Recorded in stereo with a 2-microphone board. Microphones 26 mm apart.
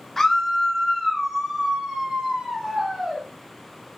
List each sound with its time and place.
0.2 s a scream: 10° left (ahead or behind), 1.0 m; by 3.2 s 15° right (ahead or behind), 2.5 m